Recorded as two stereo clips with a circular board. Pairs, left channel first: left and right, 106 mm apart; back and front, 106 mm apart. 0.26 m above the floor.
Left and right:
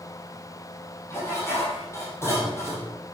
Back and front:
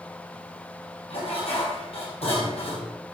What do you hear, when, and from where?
1.1 s dishes clattering: 155° left, 6.5 m